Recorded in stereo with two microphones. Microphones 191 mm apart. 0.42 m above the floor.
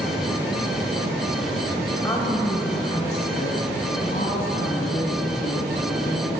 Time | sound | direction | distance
2.0 | a woman speaking | 10° left (ahead or behind) | 1.7 m